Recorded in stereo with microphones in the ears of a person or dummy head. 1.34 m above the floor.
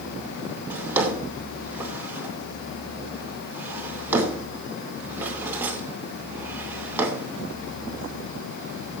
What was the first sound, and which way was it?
A drawer, 10° right (ahead or behind).